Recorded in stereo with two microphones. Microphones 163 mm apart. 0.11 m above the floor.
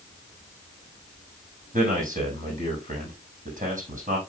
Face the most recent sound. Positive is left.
turn(degrees=-60)  # may be behind; listen again after turning